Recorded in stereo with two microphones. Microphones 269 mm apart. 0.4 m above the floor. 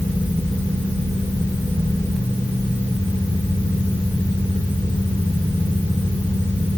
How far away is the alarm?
I don't hear an alarm.